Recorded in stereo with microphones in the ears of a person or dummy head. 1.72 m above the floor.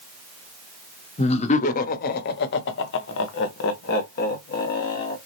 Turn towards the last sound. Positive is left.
turn(degrees=50)  # may be behind; listen again after turning